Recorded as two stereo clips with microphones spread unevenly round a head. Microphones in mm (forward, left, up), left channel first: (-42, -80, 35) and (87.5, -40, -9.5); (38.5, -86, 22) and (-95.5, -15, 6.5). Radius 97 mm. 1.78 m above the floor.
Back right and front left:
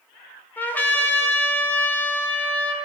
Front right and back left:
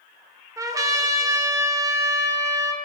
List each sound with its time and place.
0.6 s a trumpet: 150° right, 0.9 m